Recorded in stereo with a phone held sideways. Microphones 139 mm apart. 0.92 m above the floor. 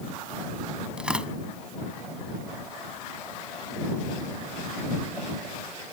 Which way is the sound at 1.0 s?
5° right (ahead or behind).